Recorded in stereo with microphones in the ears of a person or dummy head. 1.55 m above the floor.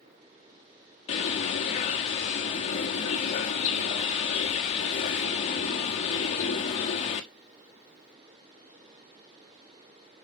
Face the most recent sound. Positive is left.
turn(degrees=40)  # may be behind; listen again after turning